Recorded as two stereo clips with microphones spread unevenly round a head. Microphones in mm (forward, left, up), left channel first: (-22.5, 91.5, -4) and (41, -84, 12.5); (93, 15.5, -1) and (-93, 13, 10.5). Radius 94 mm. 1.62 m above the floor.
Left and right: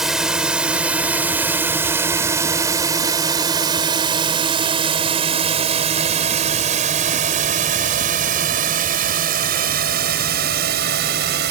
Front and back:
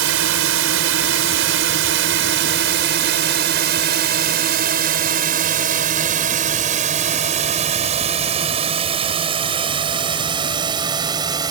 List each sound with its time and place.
0.0 s a drone: 155° right; by 11.5 s 110° right